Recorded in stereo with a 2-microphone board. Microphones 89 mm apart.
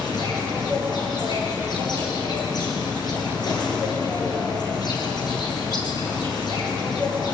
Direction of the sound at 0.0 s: 50° left (ahead or behind).